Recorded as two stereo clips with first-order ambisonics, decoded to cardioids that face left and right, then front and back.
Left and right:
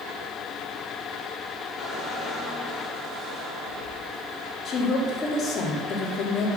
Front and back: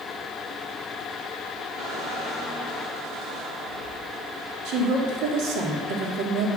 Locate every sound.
1.8 s a squeak: 175° left, 5 m
4.7 s a woman speaking: 150° left, 2.5 m